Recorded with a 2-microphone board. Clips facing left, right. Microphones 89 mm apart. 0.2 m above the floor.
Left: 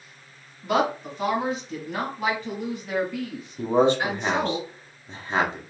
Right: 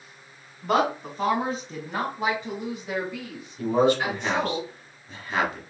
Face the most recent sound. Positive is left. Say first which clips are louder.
# left 1 dB
turn(degrees=30)  # may be behind; listen again after turning